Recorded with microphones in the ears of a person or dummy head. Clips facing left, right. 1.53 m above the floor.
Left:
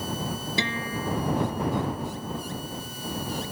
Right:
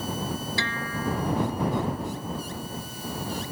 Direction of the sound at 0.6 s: 15° left (ahead or behind).